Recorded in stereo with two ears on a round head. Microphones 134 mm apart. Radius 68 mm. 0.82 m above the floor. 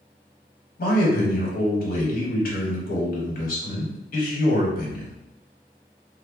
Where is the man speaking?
65° left (ahead or behind), 1.1 m.